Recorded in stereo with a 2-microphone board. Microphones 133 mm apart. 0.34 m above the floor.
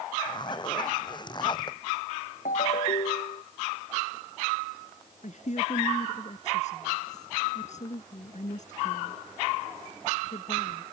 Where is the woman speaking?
60° left (ahead or behind).